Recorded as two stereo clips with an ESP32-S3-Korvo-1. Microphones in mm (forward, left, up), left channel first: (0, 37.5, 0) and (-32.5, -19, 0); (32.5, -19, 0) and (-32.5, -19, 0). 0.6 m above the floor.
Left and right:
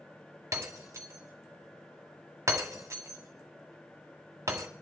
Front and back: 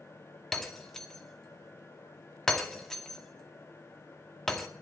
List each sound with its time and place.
0.5 s breaking glass: 85° right, 1.9 m